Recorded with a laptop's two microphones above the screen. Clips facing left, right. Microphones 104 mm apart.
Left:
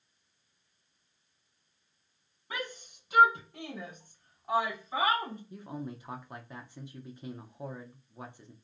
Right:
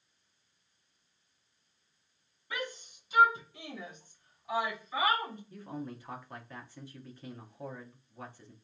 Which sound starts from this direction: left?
A shout, at 2.5 s.